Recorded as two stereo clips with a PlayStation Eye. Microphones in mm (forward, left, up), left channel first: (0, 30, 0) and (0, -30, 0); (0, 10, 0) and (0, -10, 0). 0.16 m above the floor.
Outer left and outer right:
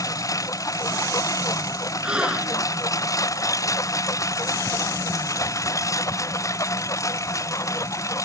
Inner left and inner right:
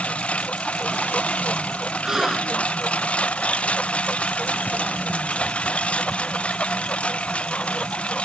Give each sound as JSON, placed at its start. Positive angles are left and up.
{"t": 0.0, "sound": "a lawn mower", "side_deg": 75}
{"t": 2.0, "sound": "a gasp", "side_deg": -20}